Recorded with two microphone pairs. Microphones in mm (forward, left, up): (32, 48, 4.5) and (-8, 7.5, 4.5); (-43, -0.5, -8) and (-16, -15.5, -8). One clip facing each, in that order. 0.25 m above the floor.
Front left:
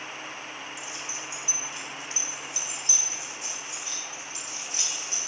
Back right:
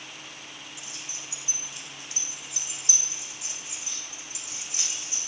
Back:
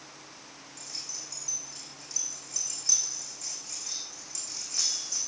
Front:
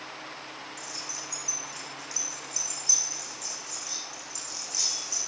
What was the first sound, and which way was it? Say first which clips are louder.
Keys jangling: front left 5 dB, even; 130° left.